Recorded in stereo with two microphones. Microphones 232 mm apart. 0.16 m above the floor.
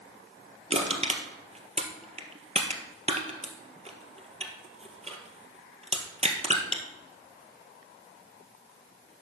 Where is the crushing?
25° right (ahead or behind), 1.6 m.